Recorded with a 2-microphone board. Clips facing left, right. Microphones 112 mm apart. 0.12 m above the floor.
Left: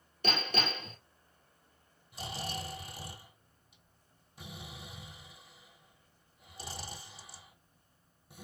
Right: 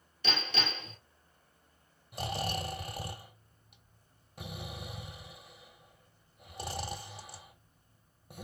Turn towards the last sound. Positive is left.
turn(degrees=-65)  # may be behind; listen again after turning